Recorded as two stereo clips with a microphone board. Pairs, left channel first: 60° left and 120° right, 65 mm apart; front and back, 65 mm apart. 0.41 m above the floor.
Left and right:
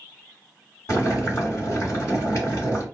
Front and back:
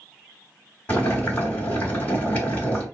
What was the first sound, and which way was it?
Boiling, 55° left.